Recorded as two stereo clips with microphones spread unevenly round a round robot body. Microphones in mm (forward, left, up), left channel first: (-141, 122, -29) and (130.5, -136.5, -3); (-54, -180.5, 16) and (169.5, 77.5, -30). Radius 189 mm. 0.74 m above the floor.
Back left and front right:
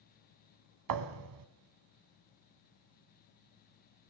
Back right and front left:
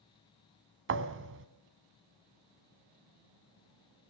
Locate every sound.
0.9 s a thud: 10° right, 1.4 m